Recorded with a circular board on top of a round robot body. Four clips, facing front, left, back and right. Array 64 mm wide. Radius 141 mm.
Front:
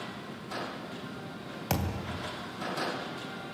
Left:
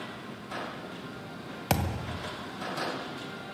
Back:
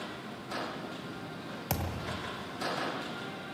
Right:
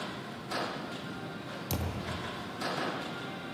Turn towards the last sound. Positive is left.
turn(degrees=80)